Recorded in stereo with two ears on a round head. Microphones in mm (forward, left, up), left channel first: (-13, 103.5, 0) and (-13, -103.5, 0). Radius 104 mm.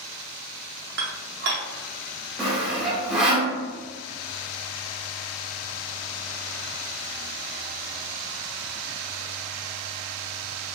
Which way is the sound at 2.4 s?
5° right (ahead or behind).